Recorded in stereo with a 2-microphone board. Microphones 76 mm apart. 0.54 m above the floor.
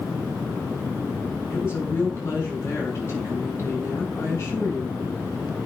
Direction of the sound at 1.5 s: 30° left (ahead or behind).